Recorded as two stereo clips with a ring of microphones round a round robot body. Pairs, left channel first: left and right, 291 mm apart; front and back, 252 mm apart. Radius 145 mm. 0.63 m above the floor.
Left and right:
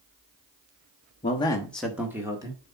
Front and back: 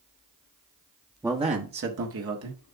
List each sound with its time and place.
1.2 s a man speaking: 110° left, 1.2 m; by 2.6 s 165° right, 2.5 m